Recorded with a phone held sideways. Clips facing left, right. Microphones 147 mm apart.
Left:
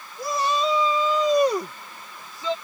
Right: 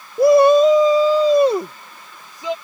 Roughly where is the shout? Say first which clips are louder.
Right 15 dB; right.